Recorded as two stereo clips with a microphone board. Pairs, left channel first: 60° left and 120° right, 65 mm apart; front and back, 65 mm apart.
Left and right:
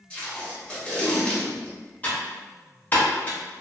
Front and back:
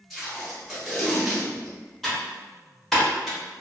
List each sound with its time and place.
0.1 s tape being pulled: 85° left, 0.9 m
2.0 s typing on a keyboard: 80° left, 0.9 m